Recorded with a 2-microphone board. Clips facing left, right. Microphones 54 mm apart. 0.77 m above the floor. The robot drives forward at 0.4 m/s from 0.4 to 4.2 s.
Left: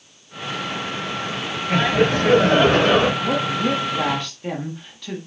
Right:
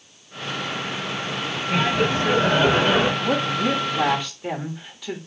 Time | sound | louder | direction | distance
1.7 | laughter | left 3 dB | 70° left (ahead or behind) | 3 m
3.2 | a woman speaking | left 1 dB | 10° right (ahead or behind) | 0.9 m